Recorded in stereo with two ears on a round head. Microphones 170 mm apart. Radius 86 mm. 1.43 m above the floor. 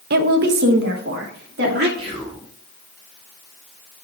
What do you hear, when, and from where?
0.1 s a woman speaking: 55° right (ahead or behind), 0.7 m; by 1.9 s 60° right (ahead or behind), 2.5 m
2.0 s whispering: 30° right (ahead or behind), 3 m